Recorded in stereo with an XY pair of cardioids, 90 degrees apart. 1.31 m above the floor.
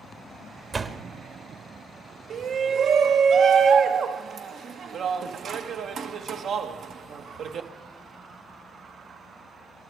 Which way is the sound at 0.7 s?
35° right.